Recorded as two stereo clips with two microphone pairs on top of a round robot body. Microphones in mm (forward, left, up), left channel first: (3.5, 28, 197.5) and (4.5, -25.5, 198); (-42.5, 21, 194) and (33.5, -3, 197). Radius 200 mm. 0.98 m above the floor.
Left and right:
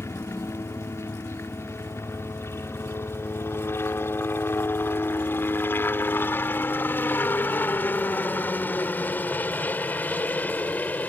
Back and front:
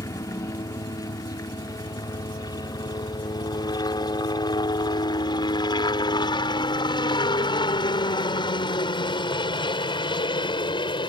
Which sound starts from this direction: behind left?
A helicopter, at 0.0 s.